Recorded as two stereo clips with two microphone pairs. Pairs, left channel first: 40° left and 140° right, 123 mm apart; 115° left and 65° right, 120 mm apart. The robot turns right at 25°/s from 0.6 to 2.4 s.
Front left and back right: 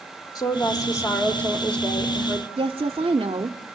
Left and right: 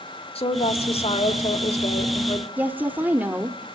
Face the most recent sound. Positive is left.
turn(degrees=-130)